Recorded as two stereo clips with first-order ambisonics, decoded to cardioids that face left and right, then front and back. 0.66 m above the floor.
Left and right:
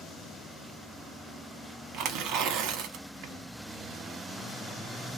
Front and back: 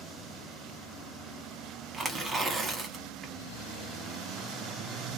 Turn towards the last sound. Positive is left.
turn(degrees=-115)